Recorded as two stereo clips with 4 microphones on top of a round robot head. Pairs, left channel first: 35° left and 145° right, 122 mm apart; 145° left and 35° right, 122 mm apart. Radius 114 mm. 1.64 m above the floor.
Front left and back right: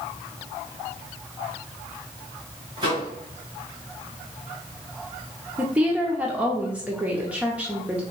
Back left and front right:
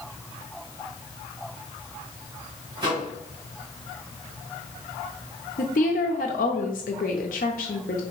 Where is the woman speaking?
135° left, 0.6 m.